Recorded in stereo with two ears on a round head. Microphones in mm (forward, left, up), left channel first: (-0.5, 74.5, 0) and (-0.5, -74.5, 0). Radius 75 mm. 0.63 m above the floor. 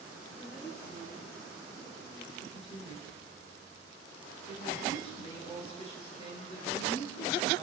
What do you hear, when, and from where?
0.4 s a woman speaking: 25° left (ahead or behind), 6 m
2.4 s a woman speaking: 35° left (ahead or behind), 7.5 m